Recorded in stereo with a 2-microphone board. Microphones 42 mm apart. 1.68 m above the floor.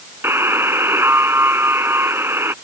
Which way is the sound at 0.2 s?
75° right (ahead or behind).